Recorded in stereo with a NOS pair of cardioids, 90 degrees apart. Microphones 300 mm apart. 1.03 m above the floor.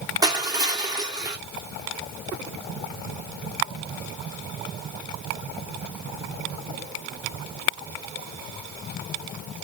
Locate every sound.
0.2 s crushing: 15° right, 1.2 m